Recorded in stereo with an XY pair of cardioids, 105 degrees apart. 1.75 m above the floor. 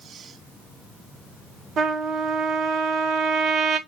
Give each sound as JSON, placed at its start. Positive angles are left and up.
{"t": 1.8, "sound": "a trumpet", "azimuth_deg": -65, "distance_m": 1.7}